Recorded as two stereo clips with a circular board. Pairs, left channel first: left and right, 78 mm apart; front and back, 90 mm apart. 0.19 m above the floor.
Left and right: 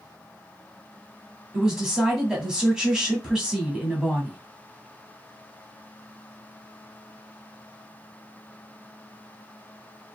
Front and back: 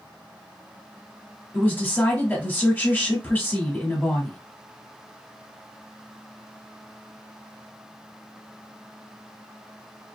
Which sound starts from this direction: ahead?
A woman speaking, at 1.5 s.